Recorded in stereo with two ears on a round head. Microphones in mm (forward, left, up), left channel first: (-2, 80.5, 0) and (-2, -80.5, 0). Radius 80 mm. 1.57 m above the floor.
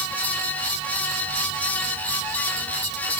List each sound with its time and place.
Only background noise.